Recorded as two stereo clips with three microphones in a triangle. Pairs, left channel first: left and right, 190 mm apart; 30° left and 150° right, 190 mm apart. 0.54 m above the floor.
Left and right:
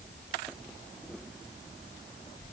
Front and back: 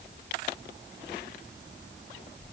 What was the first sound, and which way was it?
Only background noise.